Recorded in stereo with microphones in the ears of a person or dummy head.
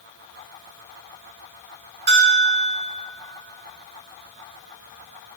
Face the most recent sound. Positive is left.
turn(degrees=-30)  # may be behind; listen again after turning